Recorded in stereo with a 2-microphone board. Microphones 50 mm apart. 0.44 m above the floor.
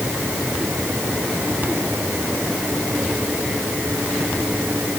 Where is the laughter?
No laughter in this recording.